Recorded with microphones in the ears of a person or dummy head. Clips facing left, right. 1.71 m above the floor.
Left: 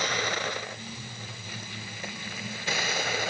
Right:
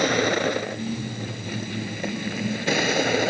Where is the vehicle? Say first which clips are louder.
Right 11 dB; 55° right (ahead or behind).